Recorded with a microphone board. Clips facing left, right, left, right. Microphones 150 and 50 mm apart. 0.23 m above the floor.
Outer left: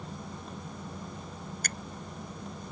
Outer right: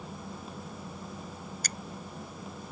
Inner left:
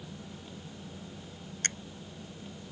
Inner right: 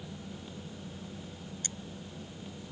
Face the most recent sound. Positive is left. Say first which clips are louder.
# outer left 2 dB, inner left 13 dB
turn(degrees=55)  # may be behind; listen again after turning